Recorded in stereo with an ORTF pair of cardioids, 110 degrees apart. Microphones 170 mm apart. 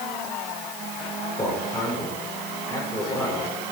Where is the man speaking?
20° left, 7 m.